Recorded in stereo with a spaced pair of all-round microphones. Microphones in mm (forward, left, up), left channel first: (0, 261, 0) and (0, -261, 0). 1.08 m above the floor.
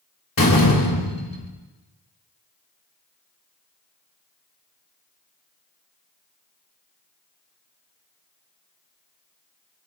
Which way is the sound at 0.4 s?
40° left (ahead or behind).